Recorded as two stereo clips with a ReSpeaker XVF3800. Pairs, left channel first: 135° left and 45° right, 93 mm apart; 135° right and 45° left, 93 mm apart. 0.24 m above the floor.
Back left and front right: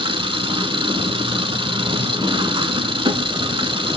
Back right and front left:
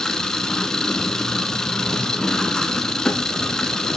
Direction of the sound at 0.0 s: 50° right.